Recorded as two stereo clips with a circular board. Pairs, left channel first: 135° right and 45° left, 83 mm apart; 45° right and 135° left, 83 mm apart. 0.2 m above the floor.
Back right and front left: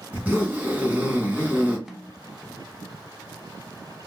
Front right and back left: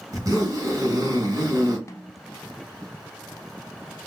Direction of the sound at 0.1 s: 110° left.